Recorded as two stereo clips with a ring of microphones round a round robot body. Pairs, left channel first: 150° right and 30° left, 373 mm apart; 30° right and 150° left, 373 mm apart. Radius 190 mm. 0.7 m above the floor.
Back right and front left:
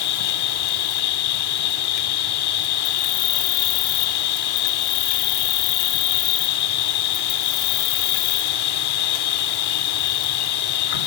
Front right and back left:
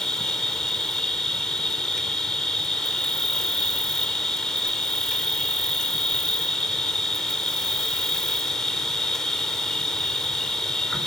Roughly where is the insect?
Behind right.